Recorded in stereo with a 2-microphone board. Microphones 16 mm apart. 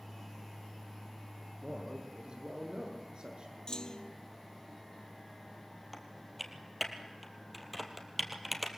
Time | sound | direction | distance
1.6 | a man speaking | 80° right | 8.5 m
3.7 | a clunk | 60° left (ahead or behind) | 0.8 m
5.9 | typing on a keyboard | 5° left (ahead or behind) | 2.5 m